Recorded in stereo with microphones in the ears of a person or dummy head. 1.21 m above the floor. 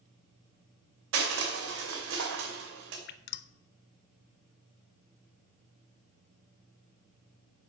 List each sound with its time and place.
1.1 s crushing: 70° right (ahead or behind), 2.5 m
3.1 s dripping: 60° left (ahead or behind), 0.8 m